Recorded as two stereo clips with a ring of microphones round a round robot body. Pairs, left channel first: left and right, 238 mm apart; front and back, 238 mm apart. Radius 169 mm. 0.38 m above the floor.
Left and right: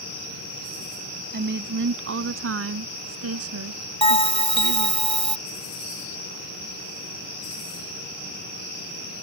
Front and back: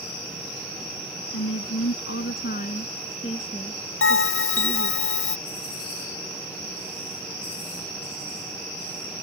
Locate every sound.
1.3 s a woman speaking: 45° right; by 5.0 s 85° right
4.0 s a bell: 25° left